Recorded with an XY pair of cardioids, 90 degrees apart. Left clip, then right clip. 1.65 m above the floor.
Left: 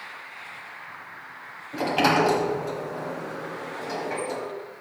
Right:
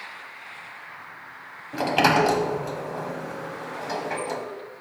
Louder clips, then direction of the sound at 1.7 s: Right 2 dB; 40° right.